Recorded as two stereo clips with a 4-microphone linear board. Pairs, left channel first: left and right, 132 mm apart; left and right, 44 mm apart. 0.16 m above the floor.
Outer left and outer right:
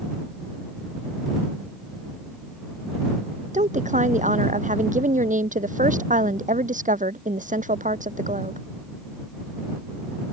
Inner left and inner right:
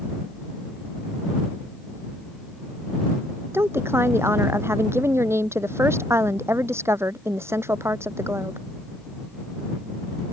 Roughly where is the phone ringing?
I don't hear a phone ringing.